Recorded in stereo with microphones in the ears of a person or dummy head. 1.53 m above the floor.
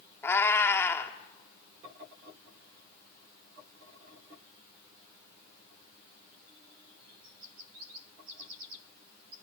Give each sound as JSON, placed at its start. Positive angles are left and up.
{"t": 0.2, "sound": "a cat meowing", "side_deg": 20, "distance_m": 1.4}